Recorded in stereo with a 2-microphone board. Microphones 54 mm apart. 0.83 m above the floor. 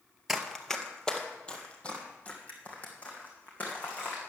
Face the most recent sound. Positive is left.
turn(degrees=30)  # may be behind; listen again after turning